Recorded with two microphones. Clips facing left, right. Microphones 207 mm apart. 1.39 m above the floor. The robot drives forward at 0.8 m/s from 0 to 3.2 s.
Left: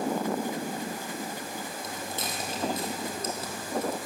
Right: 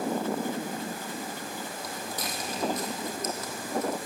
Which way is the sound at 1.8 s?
25° left (ahead or behind).